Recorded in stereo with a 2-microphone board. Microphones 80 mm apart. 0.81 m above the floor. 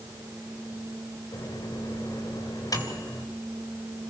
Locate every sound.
1.3 s a microwave: 50° left (ahead or behind), 3 m